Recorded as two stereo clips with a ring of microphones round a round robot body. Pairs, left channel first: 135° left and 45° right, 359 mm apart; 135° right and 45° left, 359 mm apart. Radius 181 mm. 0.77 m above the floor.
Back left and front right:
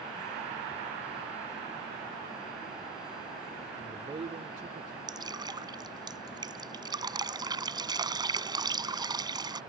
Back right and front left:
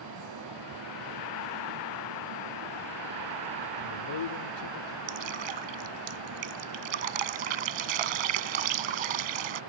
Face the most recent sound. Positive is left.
turn(degrees=35)